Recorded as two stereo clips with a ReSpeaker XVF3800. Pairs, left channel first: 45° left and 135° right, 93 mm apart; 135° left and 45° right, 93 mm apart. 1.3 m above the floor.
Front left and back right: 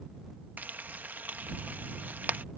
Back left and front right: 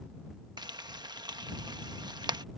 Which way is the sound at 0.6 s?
65° right.